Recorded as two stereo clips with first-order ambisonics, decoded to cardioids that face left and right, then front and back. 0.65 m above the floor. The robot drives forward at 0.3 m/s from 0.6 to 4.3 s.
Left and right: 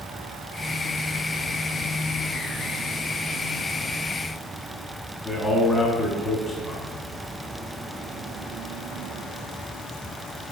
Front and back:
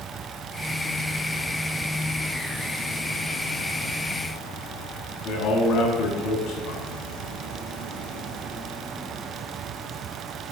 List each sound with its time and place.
5.2 s a man speaking: 15° left, 0.7 m